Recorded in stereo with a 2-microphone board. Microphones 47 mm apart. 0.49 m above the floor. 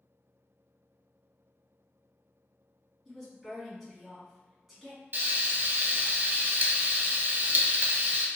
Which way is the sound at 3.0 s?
10° right (ahead or behind).